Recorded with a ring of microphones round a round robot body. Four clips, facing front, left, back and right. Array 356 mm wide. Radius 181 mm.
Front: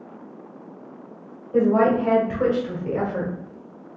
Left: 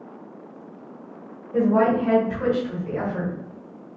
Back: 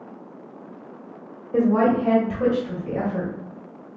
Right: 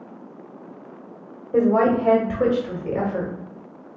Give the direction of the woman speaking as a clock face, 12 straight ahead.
3 o'clock.